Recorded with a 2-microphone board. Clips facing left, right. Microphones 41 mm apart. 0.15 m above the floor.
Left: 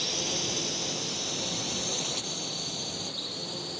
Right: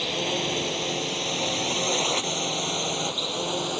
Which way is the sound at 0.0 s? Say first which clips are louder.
Right 6 dB; 35° right (ahead or behind).